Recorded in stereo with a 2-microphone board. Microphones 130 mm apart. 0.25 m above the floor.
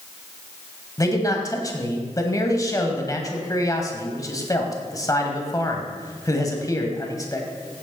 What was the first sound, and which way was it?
A man speaking, 25° left (ahead or behind).